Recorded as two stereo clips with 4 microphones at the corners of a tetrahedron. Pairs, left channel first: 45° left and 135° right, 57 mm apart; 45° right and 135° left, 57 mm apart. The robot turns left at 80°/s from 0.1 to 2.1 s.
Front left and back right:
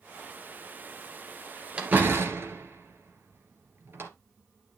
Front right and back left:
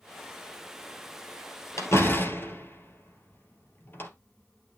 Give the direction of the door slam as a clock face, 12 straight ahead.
2 o'clock.